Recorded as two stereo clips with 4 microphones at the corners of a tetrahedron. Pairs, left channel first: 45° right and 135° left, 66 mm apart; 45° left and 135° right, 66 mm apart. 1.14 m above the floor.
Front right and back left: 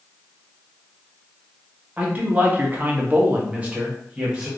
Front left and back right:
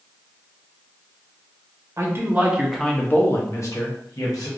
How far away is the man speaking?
About 0.8 m.